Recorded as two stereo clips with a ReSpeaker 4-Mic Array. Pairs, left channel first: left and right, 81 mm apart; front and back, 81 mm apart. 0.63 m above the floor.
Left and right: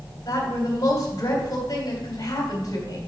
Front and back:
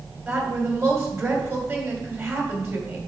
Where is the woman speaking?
125° left, 3 m.